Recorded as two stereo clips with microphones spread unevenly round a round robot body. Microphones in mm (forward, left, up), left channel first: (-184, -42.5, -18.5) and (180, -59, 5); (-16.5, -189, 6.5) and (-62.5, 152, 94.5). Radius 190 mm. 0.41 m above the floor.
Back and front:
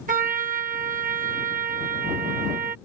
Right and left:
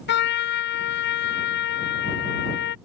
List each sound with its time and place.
0.1 s a trumpet: 65° right